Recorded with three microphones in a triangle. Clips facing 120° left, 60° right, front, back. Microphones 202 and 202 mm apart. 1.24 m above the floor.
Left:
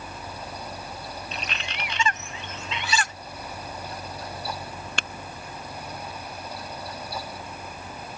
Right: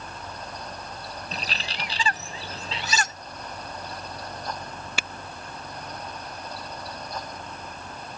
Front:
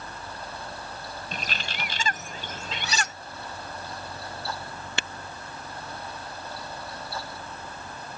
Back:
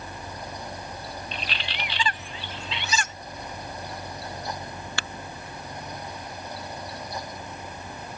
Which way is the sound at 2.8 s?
10° right.